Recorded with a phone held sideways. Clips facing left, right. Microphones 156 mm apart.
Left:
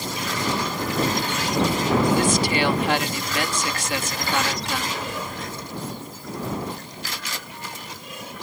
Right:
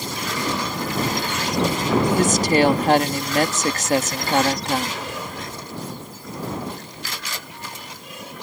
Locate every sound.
2.2 s a woman speaking: 45° right (ahead or behind)